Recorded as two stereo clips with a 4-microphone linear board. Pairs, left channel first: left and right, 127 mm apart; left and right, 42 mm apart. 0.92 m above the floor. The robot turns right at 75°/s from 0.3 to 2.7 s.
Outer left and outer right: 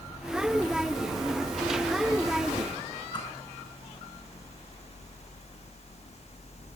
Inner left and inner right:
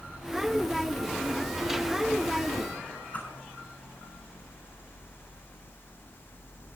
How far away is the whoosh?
About 8.5 m.